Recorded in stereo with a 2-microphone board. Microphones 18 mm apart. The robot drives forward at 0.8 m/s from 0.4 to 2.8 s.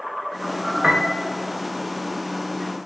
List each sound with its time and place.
0.8 s a piano: 35° right (ahead or behind), 0.7 m; by 1.2 s 55° right (ahead or behind), 0.5 m